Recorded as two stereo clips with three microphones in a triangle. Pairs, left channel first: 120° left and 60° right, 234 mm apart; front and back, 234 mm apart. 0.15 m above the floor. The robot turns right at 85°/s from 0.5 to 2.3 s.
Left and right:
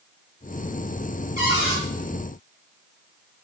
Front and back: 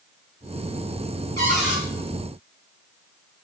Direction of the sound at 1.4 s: 70° left.